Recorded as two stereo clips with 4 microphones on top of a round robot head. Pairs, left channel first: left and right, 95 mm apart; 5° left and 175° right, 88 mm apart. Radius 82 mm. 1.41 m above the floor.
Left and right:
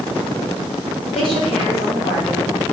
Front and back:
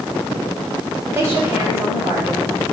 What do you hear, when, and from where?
1.1 s a woman speaking: 125° left, 5 m